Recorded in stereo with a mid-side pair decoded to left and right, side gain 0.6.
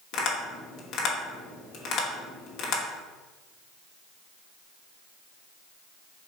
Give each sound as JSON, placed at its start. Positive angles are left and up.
{"t": 0.1, "sound": "tapping", "azimuth_deg": 65, "distance_m": 1.1}